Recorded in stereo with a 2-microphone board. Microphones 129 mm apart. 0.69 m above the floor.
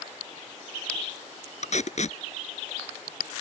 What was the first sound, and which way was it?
Tape being pulled, 60° left (ahead or behind).